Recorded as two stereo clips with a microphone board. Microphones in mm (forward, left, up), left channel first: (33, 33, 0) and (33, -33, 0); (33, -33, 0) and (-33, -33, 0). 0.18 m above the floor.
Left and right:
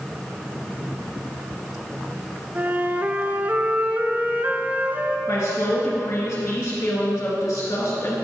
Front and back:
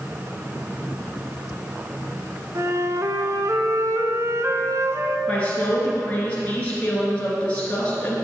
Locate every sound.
2.5 s a flute: 150° right, 0.6 m
5.3 s a woman speaking: 65° left, 2.5 m